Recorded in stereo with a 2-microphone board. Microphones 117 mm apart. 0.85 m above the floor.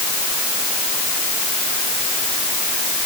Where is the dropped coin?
No dropped coin in this recording.